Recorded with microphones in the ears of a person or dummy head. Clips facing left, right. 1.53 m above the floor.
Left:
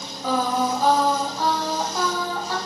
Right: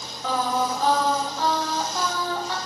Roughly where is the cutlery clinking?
I don't hear cutlery clinking.